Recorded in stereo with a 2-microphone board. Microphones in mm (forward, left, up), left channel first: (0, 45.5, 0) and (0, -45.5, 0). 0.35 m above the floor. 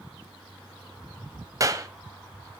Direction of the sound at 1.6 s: 35° right (ahead or behind).